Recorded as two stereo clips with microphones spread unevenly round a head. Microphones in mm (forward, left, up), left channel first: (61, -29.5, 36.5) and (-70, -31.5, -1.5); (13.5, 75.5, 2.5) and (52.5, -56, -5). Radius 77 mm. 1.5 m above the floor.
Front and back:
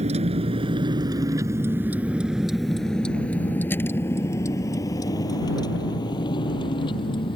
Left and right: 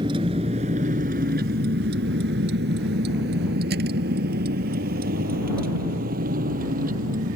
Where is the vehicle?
135° right; by 7.4 s 50° right.